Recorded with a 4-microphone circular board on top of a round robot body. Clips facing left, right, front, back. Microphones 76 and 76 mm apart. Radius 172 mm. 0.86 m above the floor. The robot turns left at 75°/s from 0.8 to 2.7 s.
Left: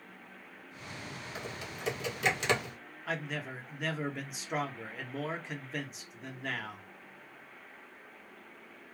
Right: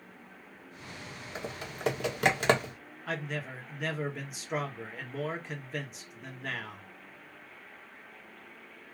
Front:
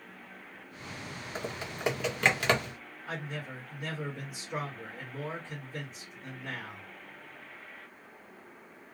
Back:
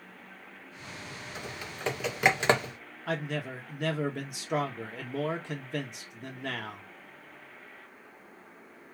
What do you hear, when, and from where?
1.4 s typing on a keyboard: 40° right, 1.4 m; by 2.7 s 140° right, 1.4 m
3.1 s a man speaking: straight behind, 1.3 m